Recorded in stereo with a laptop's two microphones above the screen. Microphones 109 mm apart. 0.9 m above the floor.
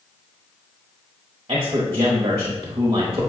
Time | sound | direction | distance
1.5 | a man speaking | 40° right (ahead or behind) | 1.1 m